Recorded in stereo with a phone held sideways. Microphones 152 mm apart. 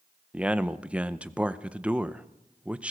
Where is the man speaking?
10° right (ahead or behind), 0.7 m.